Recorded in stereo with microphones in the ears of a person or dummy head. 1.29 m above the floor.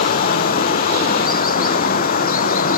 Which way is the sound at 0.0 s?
50° left (ahead or behind).